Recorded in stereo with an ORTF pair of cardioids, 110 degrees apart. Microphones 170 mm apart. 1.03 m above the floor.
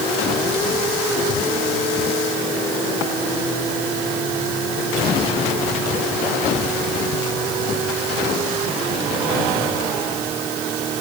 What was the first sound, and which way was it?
Only background noise.